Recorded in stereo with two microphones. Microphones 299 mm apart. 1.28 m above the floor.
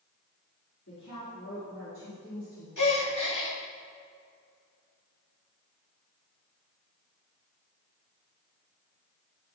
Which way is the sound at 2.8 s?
80° left.